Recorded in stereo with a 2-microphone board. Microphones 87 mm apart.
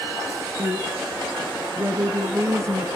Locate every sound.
0.6 s a woman speaking: 35° right (ahead or behind), 2.5 m